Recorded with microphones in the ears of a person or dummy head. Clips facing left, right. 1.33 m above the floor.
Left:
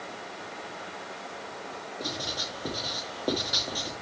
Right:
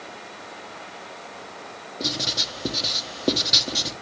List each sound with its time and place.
2.0 s writing: 30° right (ahead or behind), 1.2 m